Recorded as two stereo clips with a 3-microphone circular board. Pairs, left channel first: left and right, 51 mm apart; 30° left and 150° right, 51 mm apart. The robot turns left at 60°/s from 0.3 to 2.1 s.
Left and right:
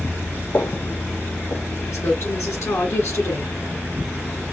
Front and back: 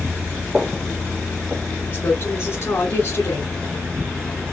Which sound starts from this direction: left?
A woman speaking, at 1.9 s.